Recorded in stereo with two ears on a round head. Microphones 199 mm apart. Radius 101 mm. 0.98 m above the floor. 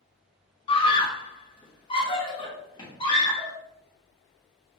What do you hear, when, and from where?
0.7 s a scream: 25° left (ahead or behind), 0.6 m; by 3.5 s 20° left (ahead or behind), 1.9 m